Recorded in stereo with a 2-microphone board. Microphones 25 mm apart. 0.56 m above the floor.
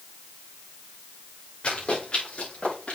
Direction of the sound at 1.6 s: 45° left (ahead or behind).